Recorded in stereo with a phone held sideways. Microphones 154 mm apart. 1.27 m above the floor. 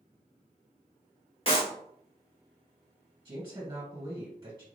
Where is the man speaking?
20° right (ahead or behind), 1.7 m.